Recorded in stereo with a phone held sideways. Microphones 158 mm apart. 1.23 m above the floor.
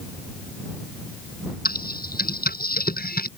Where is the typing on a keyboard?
70° left (ahead or behind).